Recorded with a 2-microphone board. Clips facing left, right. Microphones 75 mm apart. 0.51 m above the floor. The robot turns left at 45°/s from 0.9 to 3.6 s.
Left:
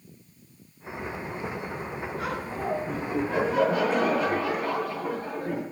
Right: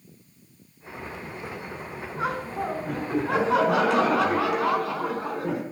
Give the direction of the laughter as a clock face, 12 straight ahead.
1 o'clock.